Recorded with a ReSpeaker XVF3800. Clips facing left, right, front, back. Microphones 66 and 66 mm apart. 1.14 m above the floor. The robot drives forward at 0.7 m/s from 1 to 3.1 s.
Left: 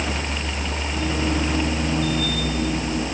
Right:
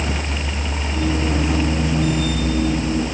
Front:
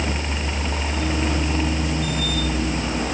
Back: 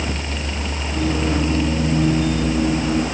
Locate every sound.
Only background noise.